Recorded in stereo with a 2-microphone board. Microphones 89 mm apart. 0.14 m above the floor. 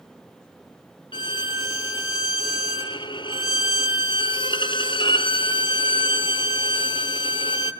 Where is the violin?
65° left (ahead or behind), 0.7 m.